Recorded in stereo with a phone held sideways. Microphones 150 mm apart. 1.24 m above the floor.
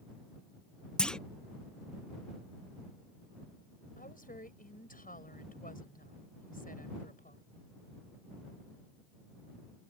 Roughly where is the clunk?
Centre.